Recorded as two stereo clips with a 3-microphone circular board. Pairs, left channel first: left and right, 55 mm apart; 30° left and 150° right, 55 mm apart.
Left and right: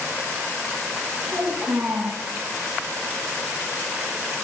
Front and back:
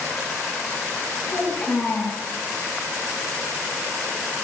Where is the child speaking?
25° right, 5 m.